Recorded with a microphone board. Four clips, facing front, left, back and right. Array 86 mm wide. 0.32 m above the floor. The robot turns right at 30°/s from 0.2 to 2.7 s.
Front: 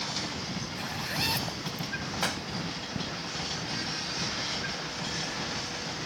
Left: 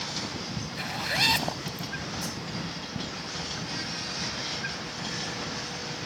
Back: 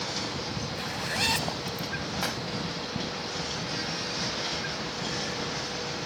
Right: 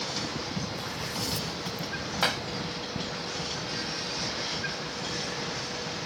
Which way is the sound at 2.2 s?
85° right.